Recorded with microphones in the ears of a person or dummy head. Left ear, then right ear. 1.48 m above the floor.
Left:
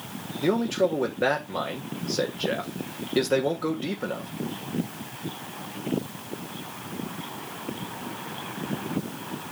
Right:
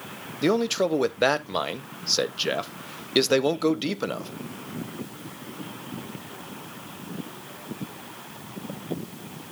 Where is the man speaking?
75° right (ahead or behind), 1.0 m.